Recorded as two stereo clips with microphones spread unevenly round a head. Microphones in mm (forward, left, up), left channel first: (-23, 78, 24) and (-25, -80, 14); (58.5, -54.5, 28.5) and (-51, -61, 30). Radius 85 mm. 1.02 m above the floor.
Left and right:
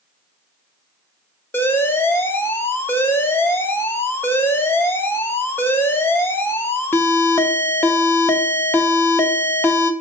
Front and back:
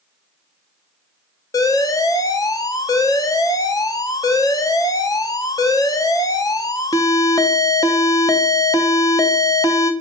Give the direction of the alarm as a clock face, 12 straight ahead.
11 o'clock.